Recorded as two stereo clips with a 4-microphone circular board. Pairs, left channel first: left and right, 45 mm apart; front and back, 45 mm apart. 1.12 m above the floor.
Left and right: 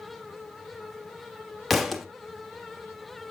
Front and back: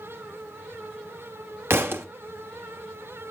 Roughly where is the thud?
Behind.